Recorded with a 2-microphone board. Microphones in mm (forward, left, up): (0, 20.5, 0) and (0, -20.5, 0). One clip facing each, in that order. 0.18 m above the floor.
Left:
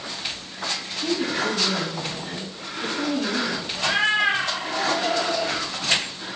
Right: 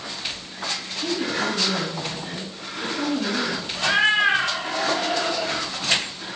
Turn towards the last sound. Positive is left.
turn(degrees=-25)  # may be behind; listen again after turning